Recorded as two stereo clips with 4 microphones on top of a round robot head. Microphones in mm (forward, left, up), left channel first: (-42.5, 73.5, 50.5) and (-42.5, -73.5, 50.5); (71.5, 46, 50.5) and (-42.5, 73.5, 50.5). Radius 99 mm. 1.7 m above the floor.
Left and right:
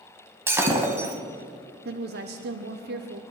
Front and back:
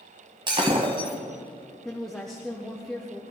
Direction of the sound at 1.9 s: 100° right.